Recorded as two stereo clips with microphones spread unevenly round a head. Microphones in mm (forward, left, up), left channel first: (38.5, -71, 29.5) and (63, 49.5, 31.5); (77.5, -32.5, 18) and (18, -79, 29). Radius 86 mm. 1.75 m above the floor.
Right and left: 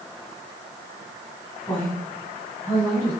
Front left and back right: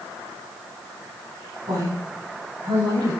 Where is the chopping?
I don't hear chopping.